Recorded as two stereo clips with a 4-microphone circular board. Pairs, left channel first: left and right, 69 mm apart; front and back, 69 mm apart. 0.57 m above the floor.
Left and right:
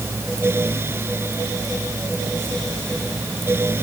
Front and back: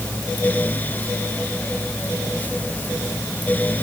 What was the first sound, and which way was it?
Only background noise.